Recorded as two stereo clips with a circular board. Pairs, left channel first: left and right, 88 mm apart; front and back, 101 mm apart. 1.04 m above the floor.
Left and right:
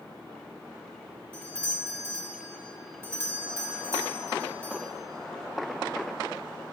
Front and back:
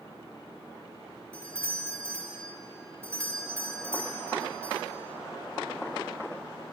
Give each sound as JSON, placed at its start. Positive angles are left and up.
{"t": 1.3, "sound": "a doorbell", "azimuth_deg": -130, "distance_m": 1.3}